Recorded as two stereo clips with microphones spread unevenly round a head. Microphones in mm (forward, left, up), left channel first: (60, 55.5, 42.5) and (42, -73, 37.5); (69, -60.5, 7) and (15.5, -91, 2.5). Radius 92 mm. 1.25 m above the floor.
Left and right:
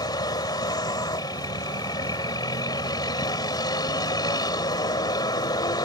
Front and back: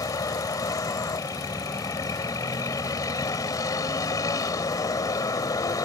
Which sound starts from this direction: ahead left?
A vehicle, at 0.0 s.